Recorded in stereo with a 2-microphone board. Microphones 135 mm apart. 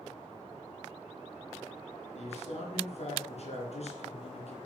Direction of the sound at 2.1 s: 55° left (ahead or behind).